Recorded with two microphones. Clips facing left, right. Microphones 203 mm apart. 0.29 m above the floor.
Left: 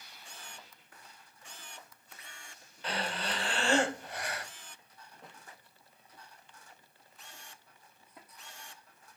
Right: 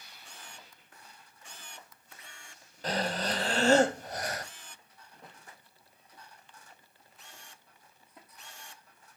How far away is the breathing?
About 0.8 m.